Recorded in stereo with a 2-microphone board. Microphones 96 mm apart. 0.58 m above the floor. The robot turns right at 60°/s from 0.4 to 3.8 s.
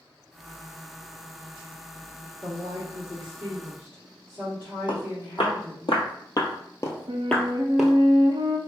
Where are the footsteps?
70° left (ahead or behind), 1.5 m; by 7.9 s 10° right (ahead or behind), 0.7 m.